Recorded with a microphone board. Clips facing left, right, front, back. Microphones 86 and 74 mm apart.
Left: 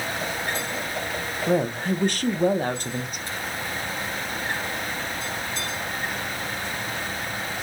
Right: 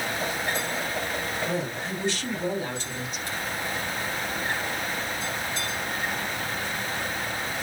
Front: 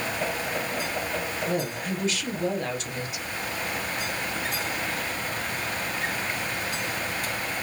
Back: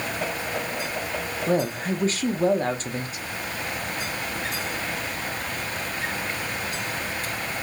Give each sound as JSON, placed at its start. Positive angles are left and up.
{"t": 1.5, "sound": "a woman speaking", "azimuth_deg": 130, "distance_m": 0.8}